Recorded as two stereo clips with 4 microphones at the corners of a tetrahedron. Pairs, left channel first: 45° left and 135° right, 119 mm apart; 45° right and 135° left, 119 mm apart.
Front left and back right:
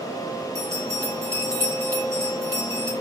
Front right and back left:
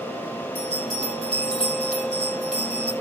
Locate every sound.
0.6 s a bell: 70° right, 7.5 m